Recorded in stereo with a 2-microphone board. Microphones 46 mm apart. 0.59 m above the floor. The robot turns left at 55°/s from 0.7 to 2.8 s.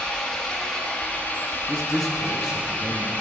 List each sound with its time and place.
0.0 s an engine running: 165° left, 1.5 m; by 3.2 s 50° left, 1.5 m
1.7 s a man speaking: 15° left (ahead or behind), 0.6 m; by 3.1 s 10° right (ahead or behind), 0.6 m